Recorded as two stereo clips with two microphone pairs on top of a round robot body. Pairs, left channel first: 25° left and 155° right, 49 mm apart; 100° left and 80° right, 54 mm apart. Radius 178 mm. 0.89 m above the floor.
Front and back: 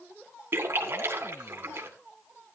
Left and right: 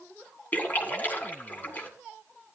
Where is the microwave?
I don't hear a microwave.